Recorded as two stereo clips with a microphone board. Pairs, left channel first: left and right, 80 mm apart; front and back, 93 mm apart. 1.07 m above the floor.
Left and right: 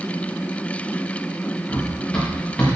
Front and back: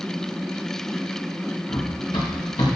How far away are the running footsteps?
About 4.5 m.